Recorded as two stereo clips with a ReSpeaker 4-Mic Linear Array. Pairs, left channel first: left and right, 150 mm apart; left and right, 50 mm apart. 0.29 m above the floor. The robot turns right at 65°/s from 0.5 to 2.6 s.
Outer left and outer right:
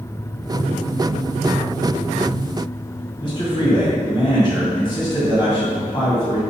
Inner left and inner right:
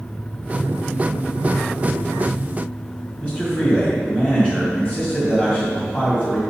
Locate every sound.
3.2 s a man speaking: 35° left (ahead or behind), 2.5 m